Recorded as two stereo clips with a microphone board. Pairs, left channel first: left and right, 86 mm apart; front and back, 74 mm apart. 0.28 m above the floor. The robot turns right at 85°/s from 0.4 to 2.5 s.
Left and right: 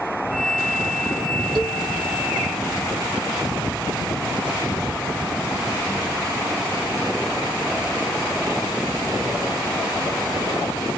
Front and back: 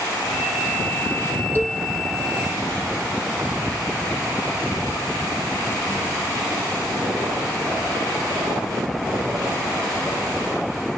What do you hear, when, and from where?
1.6 s a cowbell: 65° right, 0.8 m; by 1.8 s 40° right, 0.8 m